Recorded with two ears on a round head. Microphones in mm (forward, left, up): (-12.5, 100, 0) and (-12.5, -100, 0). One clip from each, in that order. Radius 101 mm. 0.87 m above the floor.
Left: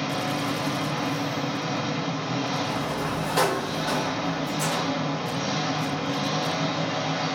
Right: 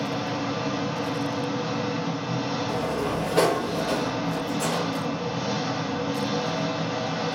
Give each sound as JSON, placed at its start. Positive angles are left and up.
{"t": 0.0, "sound": "an engine running", "side_deg": 75, "distance_m": 1.8}
{"t": 2.7, "sound": "a sliding door", "side_deg": 35, "distance_m": 1.2}